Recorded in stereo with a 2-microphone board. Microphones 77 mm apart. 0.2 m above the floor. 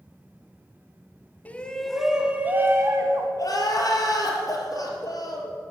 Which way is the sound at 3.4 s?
50° left (ahead or behind).